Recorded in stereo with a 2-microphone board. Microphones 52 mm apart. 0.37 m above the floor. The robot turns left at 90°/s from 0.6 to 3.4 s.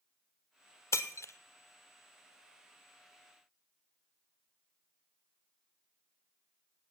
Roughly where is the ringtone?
No ringtone in this recording.